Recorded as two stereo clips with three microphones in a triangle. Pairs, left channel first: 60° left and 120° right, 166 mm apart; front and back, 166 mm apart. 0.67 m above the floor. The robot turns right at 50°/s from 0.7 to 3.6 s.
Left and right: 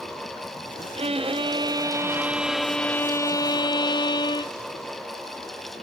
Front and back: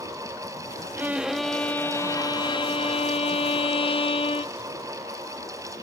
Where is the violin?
110° right, 0.5 m; by 4.5 s 20° left, 0.5 m.